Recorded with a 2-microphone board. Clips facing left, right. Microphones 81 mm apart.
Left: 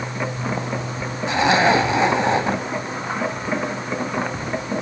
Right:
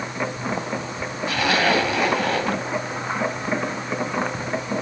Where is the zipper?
20° left (ahead or behind), 2 m.